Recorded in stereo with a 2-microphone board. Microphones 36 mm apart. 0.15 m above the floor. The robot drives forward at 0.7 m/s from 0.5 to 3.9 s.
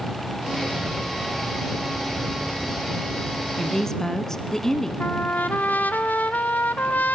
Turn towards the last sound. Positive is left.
turn(degrees=50)  # may be behind; listen again after turning